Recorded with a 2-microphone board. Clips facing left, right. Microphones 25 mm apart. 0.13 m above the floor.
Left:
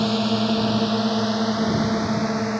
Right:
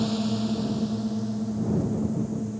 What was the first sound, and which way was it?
A drone, 35° left (ahead or behind).